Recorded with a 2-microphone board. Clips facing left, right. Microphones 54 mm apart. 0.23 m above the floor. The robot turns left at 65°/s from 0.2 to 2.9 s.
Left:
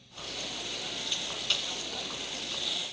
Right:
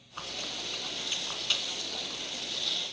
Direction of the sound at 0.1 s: 60° right (ahead or behind).